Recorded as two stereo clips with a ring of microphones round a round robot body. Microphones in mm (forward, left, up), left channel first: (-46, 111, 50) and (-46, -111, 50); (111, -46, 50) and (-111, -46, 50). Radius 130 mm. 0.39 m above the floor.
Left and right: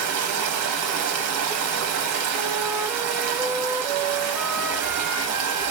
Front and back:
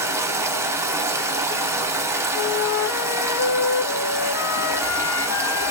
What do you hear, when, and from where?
0.0 s running water: 100° right, 1.0 m
2.3 s a flute: 15° right, 0.5 m